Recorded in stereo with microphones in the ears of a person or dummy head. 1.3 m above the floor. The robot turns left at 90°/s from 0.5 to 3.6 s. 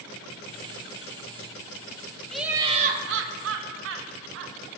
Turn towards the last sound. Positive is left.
turn(degrees=-110)